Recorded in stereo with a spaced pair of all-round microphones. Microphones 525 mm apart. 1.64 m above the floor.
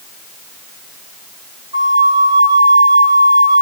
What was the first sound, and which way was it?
A flute, 45° right (ahead or behind).